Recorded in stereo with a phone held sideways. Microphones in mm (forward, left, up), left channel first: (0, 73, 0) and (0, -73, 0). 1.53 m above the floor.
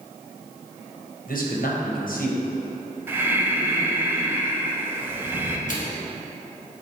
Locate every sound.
1.3 s a man speaking: 75° left (ahead or behind), 1.1 m
3.1 s breathing: 15° right (ahead or behind), 0.6 m
5.7 s a microwave: 60° left (ahead or behind), 1.2 m